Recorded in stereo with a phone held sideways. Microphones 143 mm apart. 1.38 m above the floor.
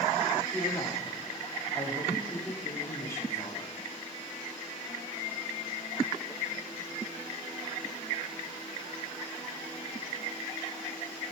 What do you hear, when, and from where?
0.5 s a woman speaking: 20° left (ahead or behind), 4 m